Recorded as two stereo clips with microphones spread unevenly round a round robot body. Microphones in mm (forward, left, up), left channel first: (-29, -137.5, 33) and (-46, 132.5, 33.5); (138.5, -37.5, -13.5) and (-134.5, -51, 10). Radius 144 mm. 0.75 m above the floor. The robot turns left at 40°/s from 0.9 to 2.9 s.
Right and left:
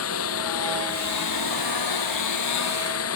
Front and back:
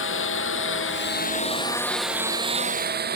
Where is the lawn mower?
45° right; by 3.1 s 125° right.